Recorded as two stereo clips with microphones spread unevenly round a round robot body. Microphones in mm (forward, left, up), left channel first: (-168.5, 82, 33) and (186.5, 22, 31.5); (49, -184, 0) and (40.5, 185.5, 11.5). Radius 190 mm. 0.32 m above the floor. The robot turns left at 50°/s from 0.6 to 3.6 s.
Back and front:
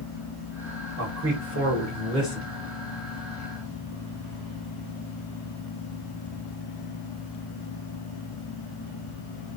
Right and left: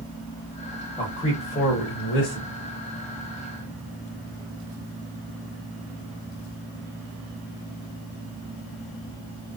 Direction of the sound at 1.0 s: 10° right.